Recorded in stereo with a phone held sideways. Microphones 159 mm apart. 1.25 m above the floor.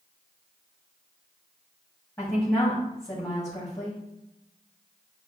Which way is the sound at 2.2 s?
20° left (ahead or behind).